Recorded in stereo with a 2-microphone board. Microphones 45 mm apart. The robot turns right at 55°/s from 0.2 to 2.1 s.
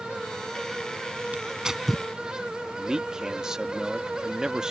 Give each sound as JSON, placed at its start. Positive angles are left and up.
{"t": 1.3, "sound": "tearing paper", "side_deg": -30}
{"t": 2.8, "sound": "a man speaking", "side_deg": -15}